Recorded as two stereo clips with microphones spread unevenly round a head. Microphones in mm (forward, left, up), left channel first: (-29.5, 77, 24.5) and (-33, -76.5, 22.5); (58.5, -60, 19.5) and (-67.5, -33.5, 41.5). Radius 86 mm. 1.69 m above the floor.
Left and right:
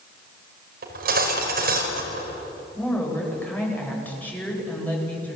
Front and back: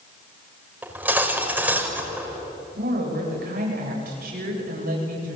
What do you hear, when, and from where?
0.8 s cutlery clinking: 115° right, 5 m
2.8 s a woman speaking: 170° left, 9 m